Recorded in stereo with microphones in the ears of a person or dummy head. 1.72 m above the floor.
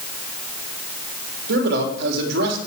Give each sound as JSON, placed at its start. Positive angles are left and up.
{"t": 1.5, "sound": "a man speaking", "side_deg": -60, "distance_m": 3.5}